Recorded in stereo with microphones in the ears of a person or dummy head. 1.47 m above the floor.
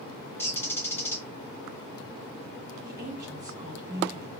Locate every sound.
0.4 s a bird: 15° left (ahead or behind), 0.6 m
2.8 s a woman speaking: 20° right (ahead or behind), 1.6 m